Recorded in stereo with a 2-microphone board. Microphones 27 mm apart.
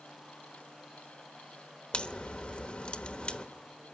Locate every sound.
1.9 s a crack: 45° left (ahead or behind), 1.1 m